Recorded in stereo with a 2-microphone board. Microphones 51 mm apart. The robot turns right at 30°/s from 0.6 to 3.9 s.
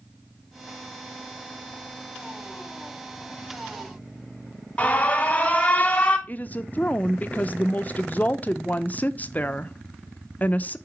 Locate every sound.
4.8 s an alarm: 25° left (ahead or behind), 1.4 m
6.3 s a woman speaking: 35° left (ahead or behind), 0.5 m